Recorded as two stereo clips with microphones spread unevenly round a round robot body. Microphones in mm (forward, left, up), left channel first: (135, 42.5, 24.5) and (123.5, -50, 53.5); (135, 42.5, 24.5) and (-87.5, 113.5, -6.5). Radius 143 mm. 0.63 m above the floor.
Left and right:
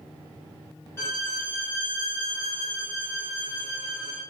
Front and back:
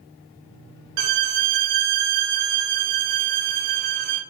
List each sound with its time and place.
1.0 s a violin: 160° left, 0.6 m